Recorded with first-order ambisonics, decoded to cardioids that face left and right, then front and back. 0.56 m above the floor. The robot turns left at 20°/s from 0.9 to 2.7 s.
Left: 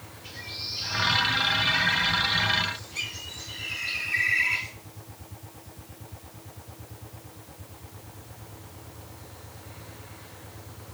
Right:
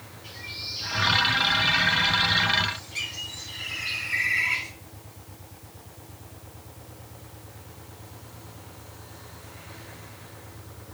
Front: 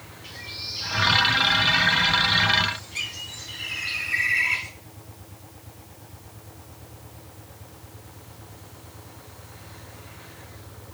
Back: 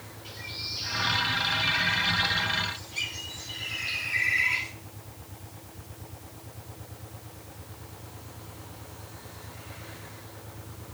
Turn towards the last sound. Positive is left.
turn(degrees=-40)